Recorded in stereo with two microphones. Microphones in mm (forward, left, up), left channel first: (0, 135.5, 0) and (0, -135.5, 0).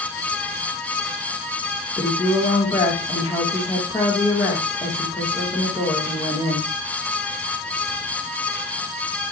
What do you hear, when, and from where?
2.0 s a woman speaking: 10° left (ahead or behind), 2 m